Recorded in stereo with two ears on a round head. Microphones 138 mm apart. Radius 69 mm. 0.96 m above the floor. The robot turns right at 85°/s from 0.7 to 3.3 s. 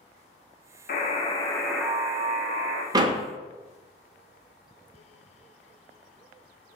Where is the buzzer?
110° left, 0.6 m; by 2.8 s 85° right, 0.6 m.